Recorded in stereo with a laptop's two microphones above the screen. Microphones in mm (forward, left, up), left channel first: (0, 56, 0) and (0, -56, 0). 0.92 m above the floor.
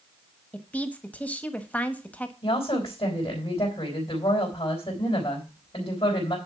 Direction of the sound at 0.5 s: 15° left (ahead or behind).